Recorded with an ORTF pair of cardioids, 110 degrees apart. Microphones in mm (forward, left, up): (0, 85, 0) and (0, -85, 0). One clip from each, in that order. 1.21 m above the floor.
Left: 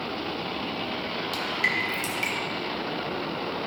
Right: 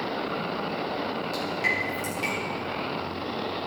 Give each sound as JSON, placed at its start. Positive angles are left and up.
{"t": 1.3, "sound": "dripping", "azimuth_deg": 40, "distance_m": 2.5}